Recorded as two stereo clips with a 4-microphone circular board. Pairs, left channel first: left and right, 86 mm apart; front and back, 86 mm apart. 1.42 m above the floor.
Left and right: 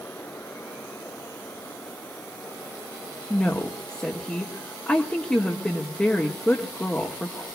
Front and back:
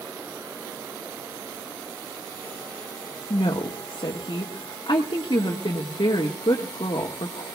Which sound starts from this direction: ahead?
A woman speaking, at 3.3 s.